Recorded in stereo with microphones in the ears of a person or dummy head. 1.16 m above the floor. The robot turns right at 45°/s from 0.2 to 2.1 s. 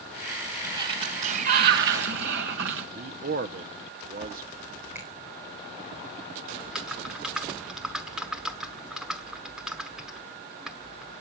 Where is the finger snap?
10° right (ahead or behind), 4 m.